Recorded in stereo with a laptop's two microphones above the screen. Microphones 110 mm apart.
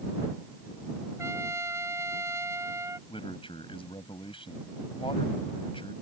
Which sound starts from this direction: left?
A man speaking, at 3.1 s.